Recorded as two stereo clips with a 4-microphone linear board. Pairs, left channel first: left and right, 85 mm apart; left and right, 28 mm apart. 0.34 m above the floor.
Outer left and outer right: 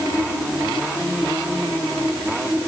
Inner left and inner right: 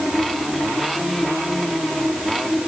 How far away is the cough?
I don't hear a cough.